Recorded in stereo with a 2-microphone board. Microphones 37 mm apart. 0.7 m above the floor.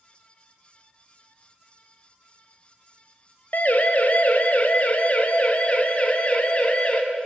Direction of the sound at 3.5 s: 55° left (ahead or behind).